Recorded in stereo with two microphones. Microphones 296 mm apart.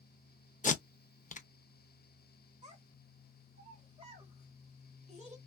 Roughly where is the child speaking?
Right.